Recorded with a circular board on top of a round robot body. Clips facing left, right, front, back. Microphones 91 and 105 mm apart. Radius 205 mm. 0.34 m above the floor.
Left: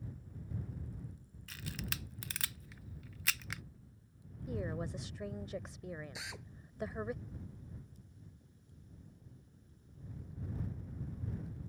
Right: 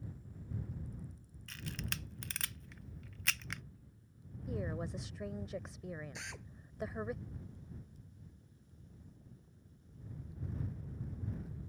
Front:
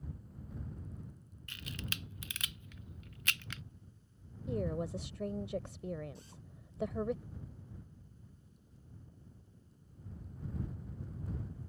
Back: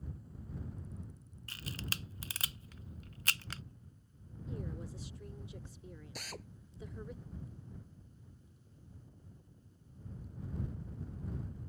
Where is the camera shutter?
175° left.